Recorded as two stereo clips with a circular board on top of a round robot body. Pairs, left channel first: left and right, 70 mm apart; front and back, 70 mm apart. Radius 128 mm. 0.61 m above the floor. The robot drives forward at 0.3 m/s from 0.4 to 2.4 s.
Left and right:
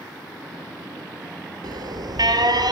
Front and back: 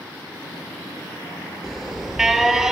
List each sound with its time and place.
1.6 s an alarm: 95° right, 3.5 m; by 2.7 s 100° right, 3.5 m